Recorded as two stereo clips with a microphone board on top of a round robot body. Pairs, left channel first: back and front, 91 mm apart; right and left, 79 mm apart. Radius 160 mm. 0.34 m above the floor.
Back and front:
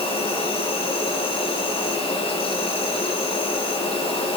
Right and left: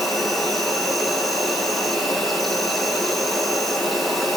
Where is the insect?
Straight behind, 6 m.